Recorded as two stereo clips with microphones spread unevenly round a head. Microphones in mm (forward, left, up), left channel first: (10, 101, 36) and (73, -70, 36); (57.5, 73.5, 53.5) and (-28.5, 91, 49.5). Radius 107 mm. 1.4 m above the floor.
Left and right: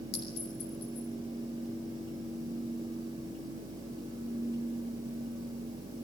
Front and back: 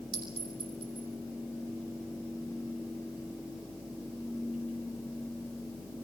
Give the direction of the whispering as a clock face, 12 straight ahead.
No whispering in this recording.